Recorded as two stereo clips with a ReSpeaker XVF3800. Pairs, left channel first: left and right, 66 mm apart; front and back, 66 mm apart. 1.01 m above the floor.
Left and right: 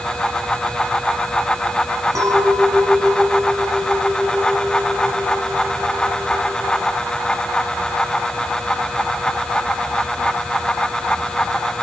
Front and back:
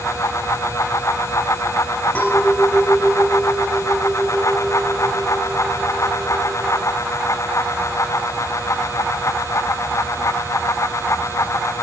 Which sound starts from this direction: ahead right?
A clink, at 2.1 s.